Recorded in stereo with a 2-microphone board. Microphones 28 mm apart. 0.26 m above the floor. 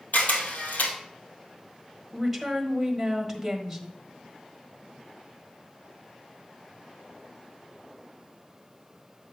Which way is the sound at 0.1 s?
80° left.